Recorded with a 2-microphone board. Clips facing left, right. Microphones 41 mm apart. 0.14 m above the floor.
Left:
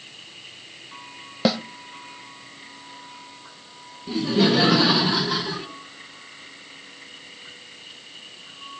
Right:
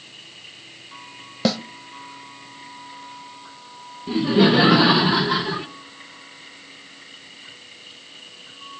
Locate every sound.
1.4 s a snare drum: 10° left (ahead or behind), 1.0 m
4.1 s laughter: 25° right (ahead or behind), 2 m